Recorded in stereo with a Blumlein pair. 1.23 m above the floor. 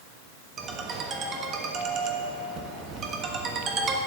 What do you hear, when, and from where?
0.6 s a ringtone: 25° right, 1.3 m